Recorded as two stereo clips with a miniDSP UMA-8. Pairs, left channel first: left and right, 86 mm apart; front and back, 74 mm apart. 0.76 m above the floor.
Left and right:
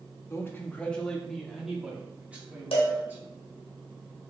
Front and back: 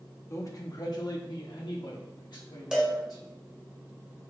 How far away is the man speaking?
About 0.9 m.